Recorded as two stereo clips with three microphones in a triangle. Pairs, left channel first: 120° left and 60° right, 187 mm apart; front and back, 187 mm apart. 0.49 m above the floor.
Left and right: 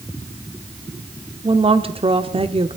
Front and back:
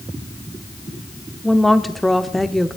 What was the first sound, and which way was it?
A woman speaking, 90° right.